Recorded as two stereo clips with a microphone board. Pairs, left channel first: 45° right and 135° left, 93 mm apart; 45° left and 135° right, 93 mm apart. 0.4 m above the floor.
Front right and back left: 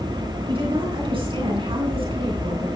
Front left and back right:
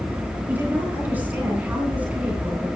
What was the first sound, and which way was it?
A woman speaking, 155° left.